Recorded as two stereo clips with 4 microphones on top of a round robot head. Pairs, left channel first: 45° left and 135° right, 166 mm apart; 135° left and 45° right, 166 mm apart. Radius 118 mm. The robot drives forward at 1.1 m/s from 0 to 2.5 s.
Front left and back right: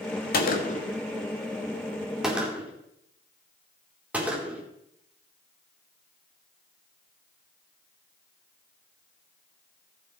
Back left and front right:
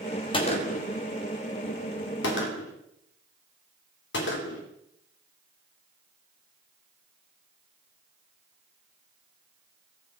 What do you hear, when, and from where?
0.3 s a gunshot: 75° left, 1.7 m; by 4.6 s 140° left, 2.5 m